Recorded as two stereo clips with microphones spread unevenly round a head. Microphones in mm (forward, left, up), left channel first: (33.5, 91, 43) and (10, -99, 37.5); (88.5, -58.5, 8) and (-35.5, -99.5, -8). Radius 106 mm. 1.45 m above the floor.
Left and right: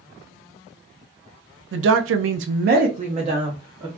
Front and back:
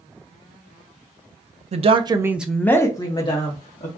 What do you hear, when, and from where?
1.7 s a woman speaking: 125° right, 0.5 m; by 3.9 s 25° right, 1.0 m